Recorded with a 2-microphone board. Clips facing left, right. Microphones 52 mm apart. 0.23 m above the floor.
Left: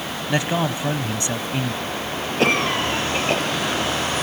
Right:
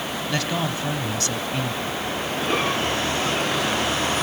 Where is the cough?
70° left (ahead or behind), 6.5 m.